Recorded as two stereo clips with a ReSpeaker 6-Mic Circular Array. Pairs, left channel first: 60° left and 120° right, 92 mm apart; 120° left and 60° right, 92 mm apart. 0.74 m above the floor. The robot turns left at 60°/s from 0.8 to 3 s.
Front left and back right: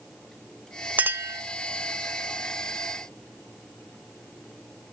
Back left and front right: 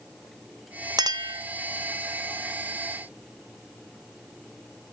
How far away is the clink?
About 0.5 m.